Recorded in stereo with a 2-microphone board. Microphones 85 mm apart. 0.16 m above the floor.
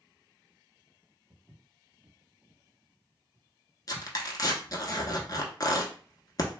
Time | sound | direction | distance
1.3 | footsteps | 15° right (ahead or behind) | 1.0 m
3.9 | tearing paper | 50° left (ahead or behind) | 0.7 m